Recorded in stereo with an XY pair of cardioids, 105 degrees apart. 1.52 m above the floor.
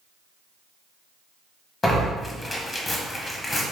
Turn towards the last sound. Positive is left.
turn(degrees=30)